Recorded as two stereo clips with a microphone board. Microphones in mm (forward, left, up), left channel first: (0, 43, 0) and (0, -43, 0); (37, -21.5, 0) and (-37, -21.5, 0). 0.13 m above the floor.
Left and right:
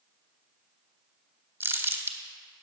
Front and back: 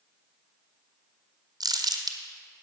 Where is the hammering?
No hammering in this recording.